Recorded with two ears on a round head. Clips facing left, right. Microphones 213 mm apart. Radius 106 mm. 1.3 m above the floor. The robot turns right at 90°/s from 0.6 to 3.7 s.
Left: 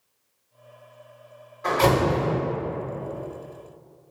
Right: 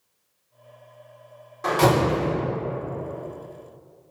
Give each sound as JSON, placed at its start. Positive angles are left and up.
{"t": 1.6, "sound": "a door slam", "azimuth_deg": -120, "distance_m": 1.3}